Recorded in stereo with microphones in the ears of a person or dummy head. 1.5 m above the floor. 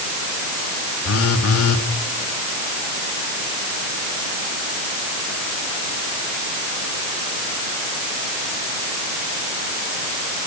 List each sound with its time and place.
1.1 s a phone buzzing: 90° left, 3 m